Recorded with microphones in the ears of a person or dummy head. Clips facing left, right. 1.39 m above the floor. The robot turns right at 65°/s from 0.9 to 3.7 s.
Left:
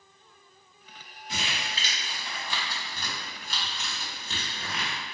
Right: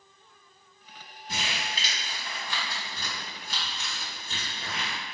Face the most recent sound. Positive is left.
turn(degrees=60)  # may be behind; listen again after turning